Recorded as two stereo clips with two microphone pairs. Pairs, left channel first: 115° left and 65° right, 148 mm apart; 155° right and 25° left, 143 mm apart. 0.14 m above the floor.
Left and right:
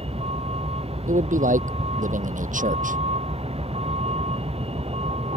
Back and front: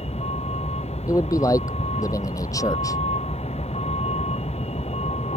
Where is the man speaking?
90° right.